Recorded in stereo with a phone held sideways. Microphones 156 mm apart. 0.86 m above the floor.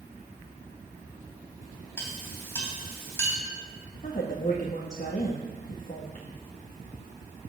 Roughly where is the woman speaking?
Left.